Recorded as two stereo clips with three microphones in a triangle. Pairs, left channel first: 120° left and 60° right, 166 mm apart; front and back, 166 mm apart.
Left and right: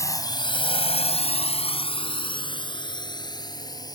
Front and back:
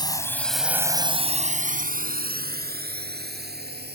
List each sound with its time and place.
0.0 s a drone: 55° left; by 4.0 s 175° right